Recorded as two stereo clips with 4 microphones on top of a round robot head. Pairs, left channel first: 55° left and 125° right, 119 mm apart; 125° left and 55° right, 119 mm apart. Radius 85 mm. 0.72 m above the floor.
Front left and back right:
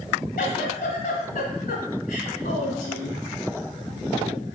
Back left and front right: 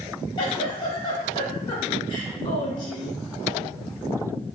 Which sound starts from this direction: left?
A giggle, at 0.4 s.